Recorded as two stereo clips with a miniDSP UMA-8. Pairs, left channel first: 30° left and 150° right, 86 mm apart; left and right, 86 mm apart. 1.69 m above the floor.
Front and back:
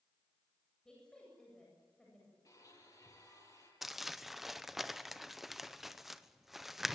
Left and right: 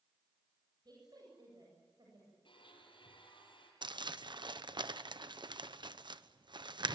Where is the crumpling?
65° right, 0.9 m.